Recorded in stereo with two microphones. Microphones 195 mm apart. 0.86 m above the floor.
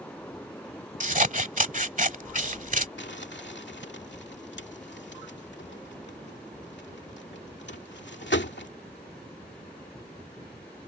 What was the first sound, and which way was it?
Scissors, 45° right (ahead or behind).